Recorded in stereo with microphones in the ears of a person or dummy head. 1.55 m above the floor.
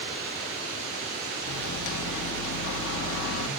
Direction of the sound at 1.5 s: 65° left (ahead or behind).